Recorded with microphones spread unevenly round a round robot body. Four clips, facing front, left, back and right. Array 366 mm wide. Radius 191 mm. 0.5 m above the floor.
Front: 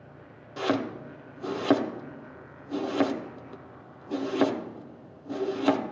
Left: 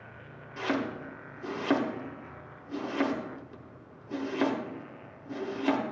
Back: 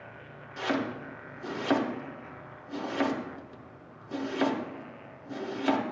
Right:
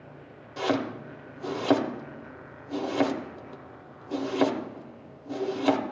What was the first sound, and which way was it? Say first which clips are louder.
Chopping: right 4 dB, front 3 dB; 40° right.